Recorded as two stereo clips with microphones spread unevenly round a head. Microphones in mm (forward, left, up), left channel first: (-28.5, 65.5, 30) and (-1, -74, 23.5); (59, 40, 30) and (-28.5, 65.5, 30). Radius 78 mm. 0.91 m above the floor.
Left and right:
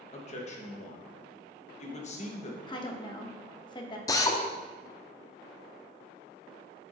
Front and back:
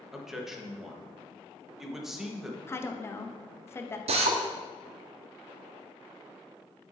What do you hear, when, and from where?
0.1 s a man speaking: 80° left, 1.1 m
2.7 s a woman speaking: 45° left, 0.8 m
4.1 s a drill: 165° left, 0.6 m